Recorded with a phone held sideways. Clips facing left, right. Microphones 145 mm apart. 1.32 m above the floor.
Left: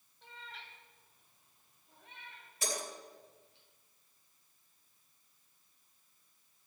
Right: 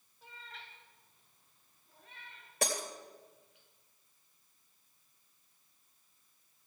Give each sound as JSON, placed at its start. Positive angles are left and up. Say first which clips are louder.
{"t": 0.2, "sound": "a cat meowing", "louder": "left 1 dB", "side_deg": -5, "distance_m": 3.0}
{"t": 2.6, "sound": "breaking glass", "louder": "right 4 dB", "side_deg": -75, "distance_m": 3.0}